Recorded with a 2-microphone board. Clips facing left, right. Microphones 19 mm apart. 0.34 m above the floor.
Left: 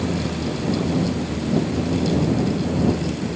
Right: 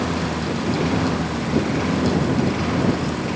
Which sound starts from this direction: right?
A lawn mower, at 0.0 s.